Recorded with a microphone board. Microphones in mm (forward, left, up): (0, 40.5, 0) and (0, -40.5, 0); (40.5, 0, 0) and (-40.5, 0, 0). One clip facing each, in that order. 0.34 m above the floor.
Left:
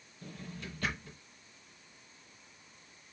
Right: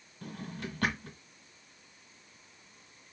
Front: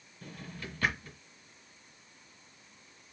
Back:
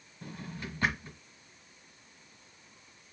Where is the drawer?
110° right, 1.7 m.